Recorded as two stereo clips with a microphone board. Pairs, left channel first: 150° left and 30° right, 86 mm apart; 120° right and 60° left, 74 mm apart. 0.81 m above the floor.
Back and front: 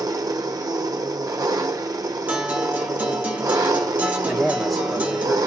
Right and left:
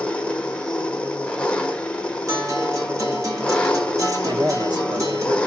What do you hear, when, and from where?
0.0 s an engine running: 50° right, 0.7 m
2.3 s a guitar: 35° left, 1.3 m
4.3 s a man speaking: 60° left, 1.1 m